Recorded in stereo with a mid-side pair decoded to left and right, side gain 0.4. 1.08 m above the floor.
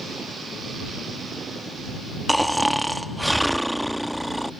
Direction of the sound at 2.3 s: 5° right.